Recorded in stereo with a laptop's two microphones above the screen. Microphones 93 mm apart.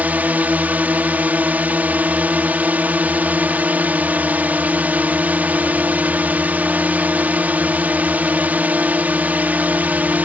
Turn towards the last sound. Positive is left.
turn(degrees=-15)  # may be behind; listen again after turning